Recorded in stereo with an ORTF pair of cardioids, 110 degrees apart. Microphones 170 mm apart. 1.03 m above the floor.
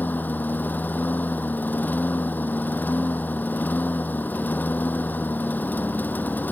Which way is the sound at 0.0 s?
10° left.